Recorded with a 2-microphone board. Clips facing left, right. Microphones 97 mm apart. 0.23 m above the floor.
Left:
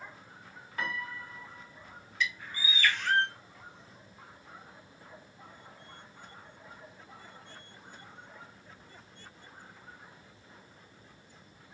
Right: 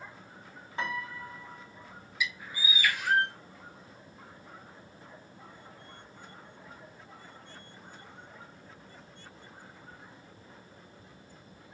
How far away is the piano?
About 1.1 m.